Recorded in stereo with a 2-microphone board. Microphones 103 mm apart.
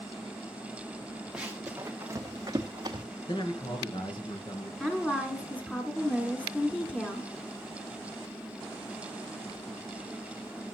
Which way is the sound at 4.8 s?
15° left (ahead or behind).